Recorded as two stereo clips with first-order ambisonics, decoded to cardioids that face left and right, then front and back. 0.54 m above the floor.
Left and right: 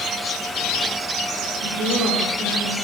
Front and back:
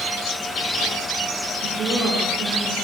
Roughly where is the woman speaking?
Behind right.